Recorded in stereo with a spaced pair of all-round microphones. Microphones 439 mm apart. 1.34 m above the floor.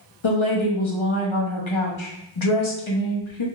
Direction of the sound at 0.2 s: 85° left.